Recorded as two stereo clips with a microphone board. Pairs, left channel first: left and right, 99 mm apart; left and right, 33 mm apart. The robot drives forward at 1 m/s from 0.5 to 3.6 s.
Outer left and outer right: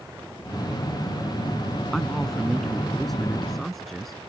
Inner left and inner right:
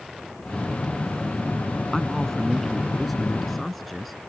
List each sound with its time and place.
1.9 s a man speaking: centre (ahead or behind)